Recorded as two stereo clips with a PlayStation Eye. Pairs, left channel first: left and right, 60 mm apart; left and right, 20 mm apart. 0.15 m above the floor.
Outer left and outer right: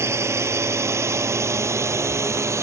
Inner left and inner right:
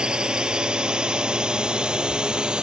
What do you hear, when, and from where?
0.0 s a drone: 50° right (ahead or behind); by 2.6 s 55° right (ahead or behind)